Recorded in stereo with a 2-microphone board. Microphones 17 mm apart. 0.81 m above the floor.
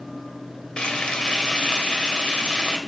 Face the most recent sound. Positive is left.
turn(degrees=85)